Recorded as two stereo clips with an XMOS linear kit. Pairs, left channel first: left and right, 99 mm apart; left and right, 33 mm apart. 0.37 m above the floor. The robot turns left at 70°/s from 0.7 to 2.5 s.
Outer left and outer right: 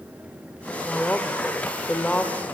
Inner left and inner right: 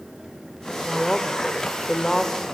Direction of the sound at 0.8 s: 10° left (ahead or behind).